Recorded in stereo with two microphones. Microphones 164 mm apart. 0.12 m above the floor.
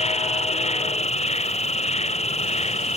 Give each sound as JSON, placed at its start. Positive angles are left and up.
{"t": 0.0, "sound": "an insect", "side_deg": 40}